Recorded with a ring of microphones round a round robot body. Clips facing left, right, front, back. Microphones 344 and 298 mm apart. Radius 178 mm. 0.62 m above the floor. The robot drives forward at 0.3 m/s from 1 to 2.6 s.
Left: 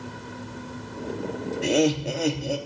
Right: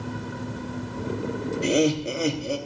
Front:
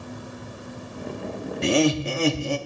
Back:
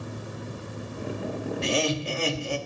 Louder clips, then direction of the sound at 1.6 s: Even, front 8 dB; 5° right.